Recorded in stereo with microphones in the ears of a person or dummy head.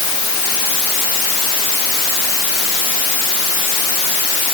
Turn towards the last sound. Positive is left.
No sound to turn to.